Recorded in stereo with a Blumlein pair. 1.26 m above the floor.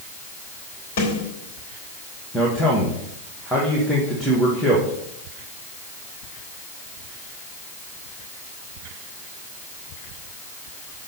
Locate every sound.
1.0 s a snare drum: 55° left, 3.5 m
2.3 s a man speaking: straight ahead, 1.8 m